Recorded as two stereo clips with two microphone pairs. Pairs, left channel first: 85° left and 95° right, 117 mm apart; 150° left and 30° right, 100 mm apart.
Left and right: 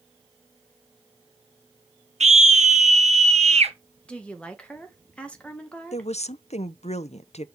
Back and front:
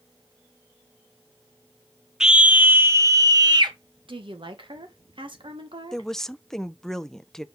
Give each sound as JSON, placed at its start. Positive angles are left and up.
{"t": 2.2, "sound": "a scream", "azimuth_deg": -110, "distance_m": 1.2}
{"t": 4.1, "sound": "a woman speaking", "azimuth_deg": 5, "distance_m": 1.6}
{"t": 5.9, "sound": "a woman speaking", "azimuth_deg": 65, "distance_m": 0.6}